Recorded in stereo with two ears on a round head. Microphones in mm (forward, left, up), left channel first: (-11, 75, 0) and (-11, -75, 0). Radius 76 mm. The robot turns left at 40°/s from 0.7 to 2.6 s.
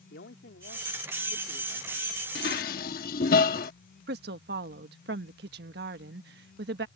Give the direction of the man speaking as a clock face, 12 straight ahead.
10 o'clock.